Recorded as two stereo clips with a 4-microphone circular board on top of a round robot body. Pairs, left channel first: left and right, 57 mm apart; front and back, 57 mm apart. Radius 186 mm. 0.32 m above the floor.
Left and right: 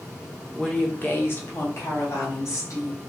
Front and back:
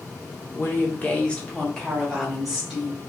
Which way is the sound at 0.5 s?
15° left.